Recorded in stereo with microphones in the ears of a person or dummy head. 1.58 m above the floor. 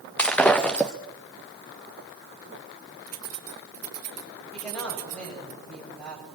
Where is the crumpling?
I don't hear crumpling.